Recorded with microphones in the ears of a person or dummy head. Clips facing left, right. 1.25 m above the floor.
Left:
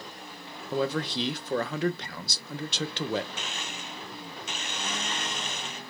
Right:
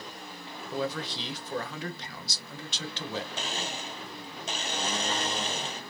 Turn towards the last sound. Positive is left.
turn(degrees=-30)  # may be behind; listen again after turning